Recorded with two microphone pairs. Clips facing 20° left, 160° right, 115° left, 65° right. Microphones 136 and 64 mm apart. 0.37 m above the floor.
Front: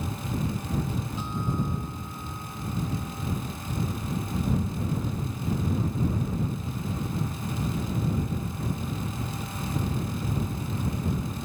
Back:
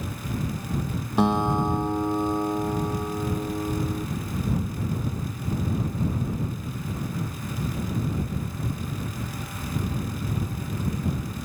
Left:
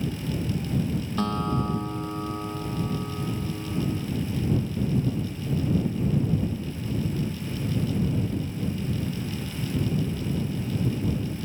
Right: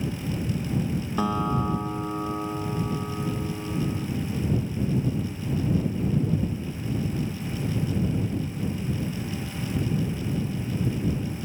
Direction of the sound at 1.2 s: 140° right.